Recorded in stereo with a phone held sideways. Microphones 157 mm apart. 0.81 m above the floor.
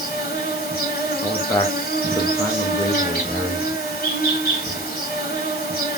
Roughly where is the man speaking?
Centre.